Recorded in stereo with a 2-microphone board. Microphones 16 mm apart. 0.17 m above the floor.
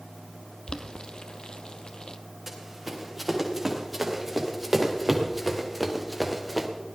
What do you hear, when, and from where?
0.7 s boiling: 60° left (ahead or behind), 0.8 m
2.5 s running footsteps: 15° right (ahead or behind), 4.5 m; by 6.7 s 10° right (ahead or behind), 2.0 m